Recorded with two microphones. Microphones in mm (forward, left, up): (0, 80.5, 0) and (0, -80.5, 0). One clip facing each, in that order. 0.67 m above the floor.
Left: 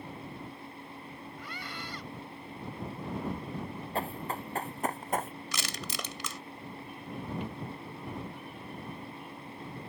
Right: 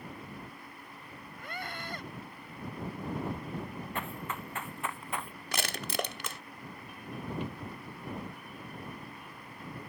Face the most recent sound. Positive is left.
turn(degrees=15)  # may be behind; listen again after turning